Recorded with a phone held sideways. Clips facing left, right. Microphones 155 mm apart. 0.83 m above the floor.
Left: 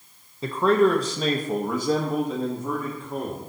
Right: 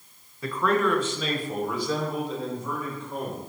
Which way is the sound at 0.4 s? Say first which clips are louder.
Left 5 dB; 25° left (ahead or behind).